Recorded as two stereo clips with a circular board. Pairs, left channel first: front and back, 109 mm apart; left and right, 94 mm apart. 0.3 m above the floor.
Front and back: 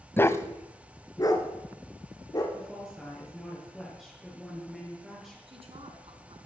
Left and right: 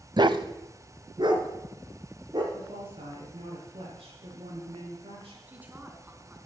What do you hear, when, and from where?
0.2 s a dog barking: 65° right, 0.7 m; by 2.4 s 55° right, 3.5 m
2.5 s a woman speaking: 90° right, 6.5 m
5.5 s a woman speaking: 160° right, 3.5 m